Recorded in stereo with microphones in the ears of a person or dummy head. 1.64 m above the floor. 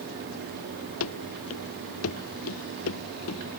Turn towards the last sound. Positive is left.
turn(degrees=80)